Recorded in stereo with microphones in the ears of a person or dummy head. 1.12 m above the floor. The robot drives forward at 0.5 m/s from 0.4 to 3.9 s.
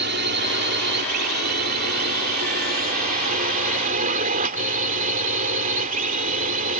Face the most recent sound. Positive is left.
turn(degrees=-50)  # may be behind; listen again after turning